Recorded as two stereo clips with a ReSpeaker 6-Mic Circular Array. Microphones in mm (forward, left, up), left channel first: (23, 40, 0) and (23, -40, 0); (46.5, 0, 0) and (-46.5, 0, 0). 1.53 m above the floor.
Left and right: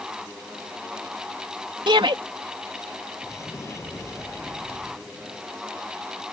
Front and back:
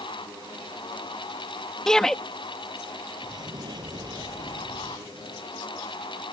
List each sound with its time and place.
1.9 s a shout: 85° right
3.2 s an explosion: 140° left